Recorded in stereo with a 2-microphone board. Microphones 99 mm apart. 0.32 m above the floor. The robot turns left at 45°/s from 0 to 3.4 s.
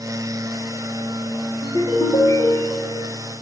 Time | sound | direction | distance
1.6 | a ringtone | 75° left | 6 m